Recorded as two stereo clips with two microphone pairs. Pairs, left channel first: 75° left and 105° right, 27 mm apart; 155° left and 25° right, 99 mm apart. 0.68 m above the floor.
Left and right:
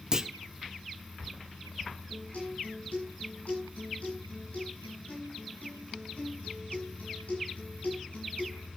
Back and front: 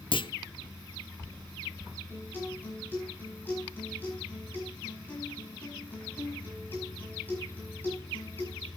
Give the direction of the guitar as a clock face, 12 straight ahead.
9 o'clock.